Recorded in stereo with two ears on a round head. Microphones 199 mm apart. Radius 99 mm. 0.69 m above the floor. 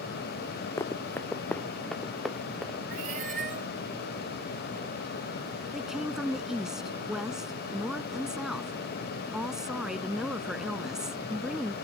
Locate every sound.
0.8 s running footsteps: 15° left (ahead or behind); by 2.8 s centre (ahead or behind)
2.9 s a cat meowing: 35° right (ahead or behind)
5.7 s a woman speaking: centre (ahead or behind)